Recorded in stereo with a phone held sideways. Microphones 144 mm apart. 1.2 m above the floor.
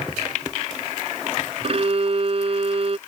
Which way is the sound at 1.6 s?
45° right (ahead or behind).